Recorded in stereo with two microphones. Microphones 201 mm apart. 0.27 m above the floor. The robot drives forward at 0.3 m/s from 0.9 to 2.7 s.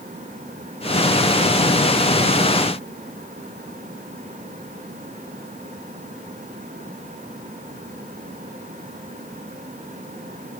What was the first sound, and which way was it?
Only background noise.